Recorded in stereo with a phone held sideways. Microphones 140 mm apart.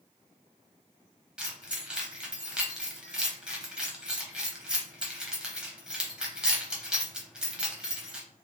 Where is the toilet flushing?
No toilet flushing in this recording.